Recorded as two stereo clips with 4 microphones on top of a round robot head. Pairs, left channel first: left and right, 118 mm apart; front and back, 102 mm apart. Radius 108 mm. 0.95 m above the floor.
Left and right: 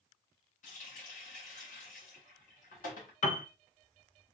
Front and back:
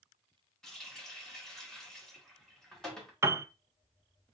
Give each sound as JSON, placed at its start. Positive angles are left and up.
{"t": 0.6, "sound": "a running tap", "azimuth_deg": 85, "distance_m": 1.5}
{"t": 3.2, "sound": "a piano", "azimuth_deg": 115, "distance_m": 0.6}